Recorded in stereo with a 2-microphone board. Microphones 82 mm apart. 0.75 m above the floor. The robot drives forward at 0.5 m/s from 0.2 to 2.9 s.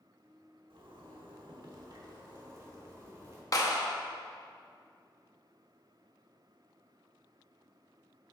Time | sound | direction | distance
0.7 | a zipper | 85° right | 1.0 m
3.5 | a clap | 45° left (ahead or behind) | 0.8 m